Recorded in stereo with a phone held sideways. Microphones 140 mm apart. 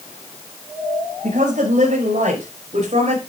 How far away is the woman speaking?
About 5.5 m.